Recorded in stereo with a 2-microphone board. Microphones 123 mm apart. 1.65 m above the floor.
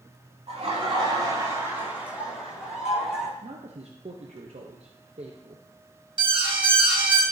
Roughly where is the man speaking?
Right.